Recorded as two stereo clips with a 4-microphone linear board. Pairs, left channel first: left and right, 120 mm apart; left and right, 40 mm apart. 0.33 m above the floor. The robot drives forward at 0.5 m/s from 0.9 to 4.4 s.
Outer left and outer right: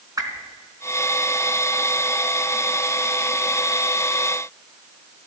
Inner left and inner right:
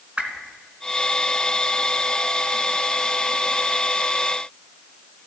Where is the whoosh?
30° right (ahead or behind), 1.8 m.